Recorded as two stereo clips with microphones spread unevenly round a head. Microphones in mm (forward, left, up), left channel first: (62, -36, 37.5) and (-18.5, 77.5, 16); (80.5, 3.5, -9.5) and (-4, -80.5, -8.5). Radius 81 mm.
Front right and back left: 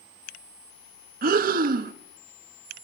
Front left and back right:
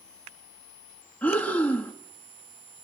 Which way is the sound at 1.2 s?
125° left.